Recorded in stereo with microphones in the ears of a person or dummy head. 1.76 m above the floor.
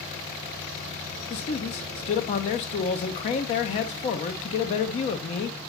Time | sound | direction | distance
1.3 | a man speaking | 35° left (ahead or behind) | 0.7 m